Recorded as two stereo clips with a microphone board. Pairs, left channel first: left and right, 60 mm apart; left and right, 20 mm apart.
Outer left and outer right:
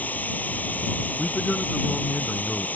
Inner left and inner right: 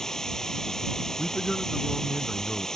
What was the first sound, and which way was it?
Running water, 30° left (ahead or behind).